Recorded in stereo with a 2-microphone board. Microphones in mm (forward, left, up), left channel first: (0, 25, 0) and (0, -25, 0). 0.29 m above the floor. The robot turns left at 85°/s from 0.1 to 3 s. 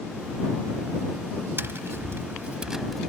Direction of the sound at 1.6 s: 65° right.